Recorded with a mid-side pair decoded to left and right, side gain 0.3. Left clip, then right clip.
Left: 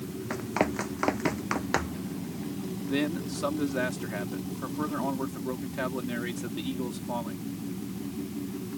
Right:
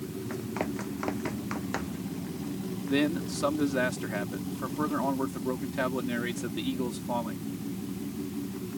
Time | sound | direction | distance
0.3 | running footsteps | 65° left | ?
2.9 | a man speaking | 30° right | ?